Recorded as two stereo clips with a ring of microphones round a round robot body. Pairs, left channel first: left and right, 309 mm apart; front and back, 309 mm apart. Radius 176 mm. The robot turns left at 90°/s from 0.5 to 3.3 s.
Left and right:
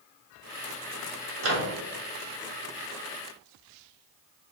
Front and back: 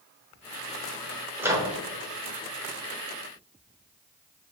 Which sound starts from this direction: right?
A microwave, at 1.4 s.